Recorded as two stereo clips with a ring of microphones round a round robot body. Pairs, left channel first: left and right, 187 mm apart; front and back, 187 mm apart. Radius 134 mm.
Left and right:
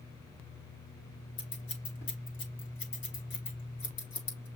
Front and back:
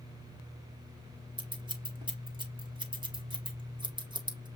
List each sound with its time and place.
1.4 s scissors: 115° left, 1.6 m